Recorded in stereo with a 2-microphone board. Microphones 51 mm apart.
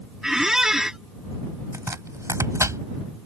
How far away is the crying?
No crying in this recording.